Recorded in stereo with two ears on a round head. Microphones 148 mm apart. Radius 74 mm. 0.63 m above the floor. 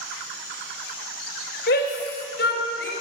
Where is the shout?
65° left (ahead or behind), 3 m; by 2.9 s 70° left (ahead or behind), 4 m.